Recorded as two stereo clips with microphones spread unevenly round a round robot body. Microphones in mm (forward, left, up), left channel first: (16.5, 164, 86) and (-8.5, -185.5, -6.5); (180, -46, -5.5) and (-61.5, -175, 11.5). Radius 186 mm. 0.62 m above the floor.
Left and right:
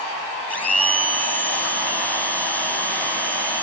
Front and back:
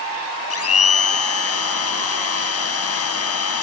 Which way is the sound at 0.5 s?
5° right.